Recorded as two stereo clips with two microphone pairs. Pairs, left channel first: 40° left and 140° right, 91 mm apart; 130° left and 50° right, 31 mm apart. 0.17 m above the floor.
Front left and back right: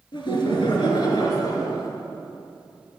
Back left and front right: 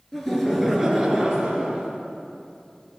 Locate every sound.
0.1 s laughter: 50° left, 2.5 m; by 1.9 s 10° right, 2.5 m